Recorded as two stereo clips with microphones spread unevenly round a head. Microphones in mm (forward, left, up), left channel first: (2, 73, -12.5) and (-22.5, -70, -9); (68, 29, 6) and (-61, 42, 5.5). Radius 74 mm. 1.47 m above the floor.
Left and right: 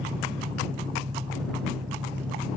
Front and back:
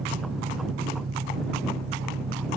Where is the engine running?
160° right.